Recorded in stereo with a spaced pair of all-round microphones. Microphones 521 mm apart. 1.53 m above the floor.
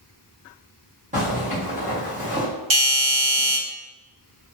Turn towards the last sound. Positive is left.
turn(degrees=-60)  # may be behind; listen again after turning